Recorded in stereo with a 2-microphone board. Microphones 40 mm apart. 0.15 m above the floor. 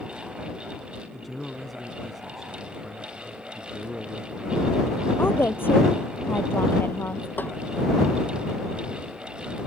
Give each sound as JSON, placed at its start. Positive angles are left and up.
{"t": 1.1, "sound": "a man speaking", "side_deg": 0}
{"t": 3.5, "sound": "a man speaking", "side_deg": -20}
{"t": 5.2, "sound": "a woman speaking", "side_deg": 65}
{"t": 7.4, "sound": "a snare drum", "side_deg": 55}